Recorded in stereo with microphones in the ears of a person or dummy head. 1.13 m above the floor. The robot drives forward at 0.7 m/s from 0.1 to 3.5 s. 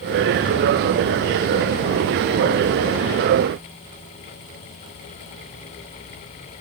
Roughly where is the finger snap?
I don't hear a finger snap.